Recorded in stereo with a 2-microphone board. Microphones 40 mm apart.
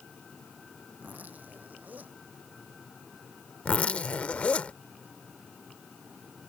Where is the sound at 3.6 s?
35° left (ahead or behind).